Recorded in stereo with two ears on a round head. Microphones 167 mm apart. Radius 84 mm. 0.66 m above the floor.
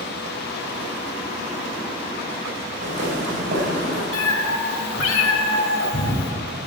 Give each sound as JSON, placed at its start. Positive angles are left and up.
{"t": 2.8, "sound": "footsteps", "side_deg": -40, "distance_m": 6.0}
{"t": 4.1, "sound": "a cat meowing", "side_deg": 75, "distance_m": 1.7}